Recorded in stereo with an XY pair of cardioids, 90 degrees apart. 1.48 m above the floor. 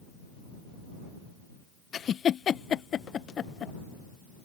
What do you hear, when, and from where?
1.9 s a giggle: 65° left